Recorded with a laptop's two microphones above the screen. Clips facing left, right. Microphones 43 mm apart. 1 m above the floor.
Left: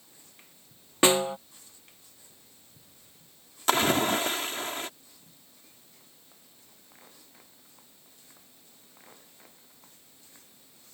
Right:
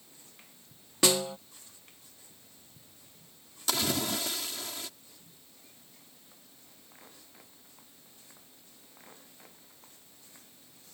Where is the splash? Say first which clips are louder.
Left 8 dB; 50° left (ahead or behind).